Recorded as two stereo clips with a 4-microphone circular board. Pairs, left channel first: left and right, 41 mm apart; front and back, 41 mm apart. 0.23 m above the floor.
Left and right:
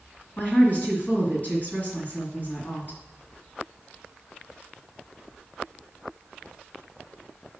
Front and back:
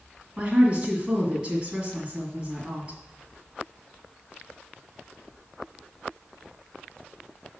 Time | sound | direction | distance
0.4 | a woman speaking | 120° left | 2 m